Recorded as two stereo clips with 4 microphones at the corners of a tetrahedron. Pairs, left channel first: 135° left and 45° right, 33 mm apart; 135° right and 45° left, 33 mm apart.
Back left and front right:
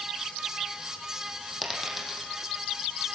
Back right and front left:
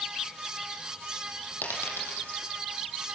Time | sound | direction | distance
1.6 | a dropped coin | 130° right | 6 m